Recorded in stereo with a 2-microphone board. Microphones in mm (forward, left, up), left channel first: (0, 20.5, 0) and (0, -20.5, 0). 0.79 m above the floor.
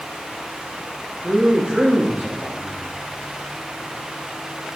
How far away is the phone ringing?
I don't hear a phone ringing.